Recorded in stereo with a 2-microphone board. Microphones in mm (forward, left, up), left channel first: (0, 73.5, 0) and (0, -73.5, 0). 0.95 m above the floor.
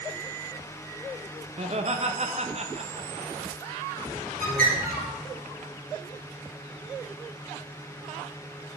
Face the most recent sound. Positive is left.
turn(degrees=-75)  # may be behind; listen again after turning